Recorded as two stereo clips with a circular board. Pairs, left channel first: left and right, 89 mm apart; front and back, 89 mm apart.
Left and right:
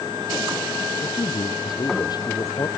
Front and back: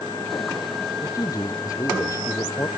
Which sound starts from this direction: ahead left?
A man speaking, at 1.0 s.